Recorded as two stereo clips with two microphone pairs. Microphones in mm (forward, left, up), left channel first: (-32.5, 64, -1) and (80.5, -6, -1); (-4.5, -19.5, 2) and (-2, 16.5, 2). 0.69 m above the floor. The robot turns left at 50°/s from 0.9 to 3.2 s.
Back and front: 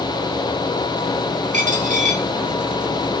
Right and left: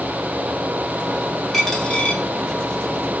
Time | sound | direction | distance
1.5 | a dropped coin | 10° right | 1.3 m